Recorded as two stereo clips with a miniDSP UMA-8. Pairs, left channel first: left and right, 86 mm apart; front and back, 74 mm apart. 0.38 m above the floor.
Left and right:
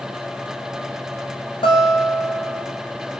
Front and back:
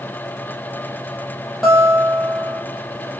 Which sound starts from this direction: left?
A guitar, at 1.6 s.